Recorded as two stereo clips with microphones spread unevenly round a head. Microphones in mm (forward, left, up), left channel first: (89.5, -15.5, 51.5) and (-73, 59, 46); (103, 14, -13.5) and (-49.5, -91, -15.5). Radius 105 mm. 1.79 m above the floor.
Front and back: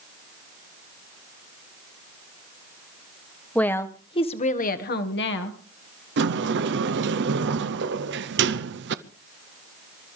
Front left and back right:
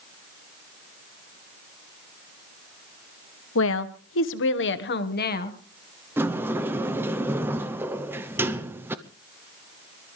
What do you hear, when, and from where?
3.5 s a woman speaking: 60° left, 1.4 m; by 5.6 s 10° right, 1.7 m
6.2 s a sliding door: 135° left, 0.7 m